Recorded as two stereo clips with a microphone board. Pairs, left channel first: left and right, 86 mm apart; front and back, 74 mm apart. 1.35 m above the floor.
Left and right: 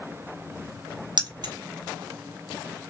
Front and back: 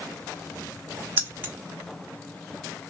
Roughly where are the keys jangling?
Behind right.